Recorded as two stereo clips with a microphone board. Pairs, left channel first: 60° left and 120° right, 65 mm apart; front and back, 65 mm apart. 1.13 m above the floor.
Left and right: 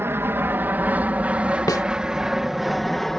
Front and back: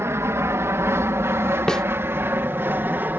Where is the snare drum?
80° left.